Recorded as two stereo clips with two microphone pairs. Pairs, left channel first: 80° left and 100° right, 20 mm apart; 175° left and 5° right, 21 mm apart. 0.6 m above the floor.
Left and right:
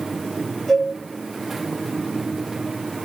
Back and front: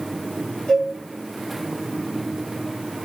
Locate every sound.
0.7 s a cowbell: 145° left, 1.6 m